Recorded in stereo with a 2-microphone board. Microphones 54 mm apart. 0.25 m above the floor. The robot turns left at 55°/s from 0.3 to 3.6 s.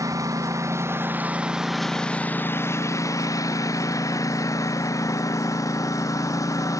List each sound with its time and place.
0.0 s a lawn mower: 100° right; by 6.8 s 80° left